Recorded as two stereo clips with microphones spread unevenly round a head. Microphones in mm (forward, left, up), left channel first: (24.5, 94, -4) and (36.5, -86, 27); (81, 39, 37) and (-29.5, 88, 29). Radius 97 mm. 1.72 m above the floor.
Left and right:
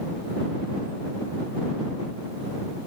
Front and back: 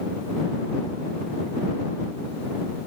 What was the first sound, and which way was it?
Only background noise.